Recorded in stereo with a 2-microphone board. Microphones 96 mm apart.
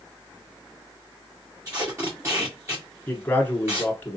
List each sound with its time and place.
1.6 s tape being pulled: 30° right (ahead or behind), 1.8 m
3.1 s a man speaking: 20° left (ahead or behind), 1.2 m